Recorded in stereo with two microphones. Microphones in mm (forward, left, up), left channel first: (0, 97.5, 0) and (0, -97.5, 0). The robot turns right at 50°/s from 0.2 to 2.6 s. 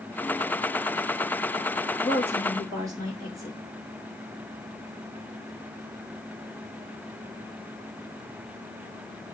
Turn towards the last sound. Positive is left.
turn(degrees=-20)  # may be behind; listen again after turning